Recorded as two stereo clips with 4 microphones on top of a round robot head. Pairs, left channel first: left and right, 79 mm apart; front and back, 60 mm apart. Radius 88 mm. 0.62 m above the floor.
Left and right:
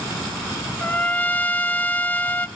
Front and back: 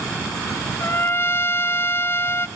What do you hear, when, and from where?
0.8 s a trumpet: 30° left, 0.9 m